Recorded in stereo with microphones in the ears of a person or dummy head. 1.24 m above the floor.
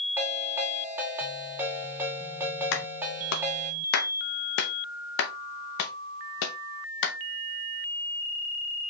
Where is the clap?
65° left (ahead or behind), 0.7 m.